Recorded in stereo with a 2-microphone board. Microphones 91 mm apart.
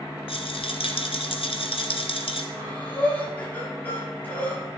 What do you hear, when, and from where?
0.3 s a rattle: 80° left, 1.6 m
2.5 s breathing: 20° left (ahead or behind), 5.5 m